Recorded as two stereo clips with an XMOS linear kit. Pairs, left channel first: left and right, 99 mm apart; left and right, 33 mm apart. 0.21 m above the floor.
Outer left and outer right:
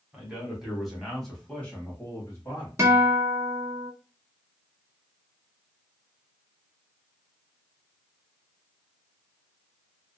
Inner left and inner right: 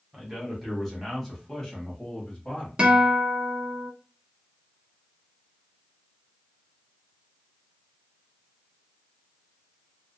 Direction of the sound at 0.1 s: 10° right (ahead or behind).